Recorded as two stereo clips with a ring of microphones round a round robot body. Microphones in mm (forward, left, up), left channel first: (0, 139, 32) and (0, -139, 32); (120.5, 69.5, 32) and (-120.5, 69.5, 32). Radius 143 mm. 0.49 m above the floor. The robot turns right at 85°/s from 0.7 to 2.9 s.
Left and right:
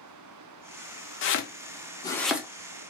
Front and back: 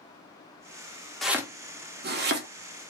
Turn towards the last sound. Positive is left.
turn(degrees=-130)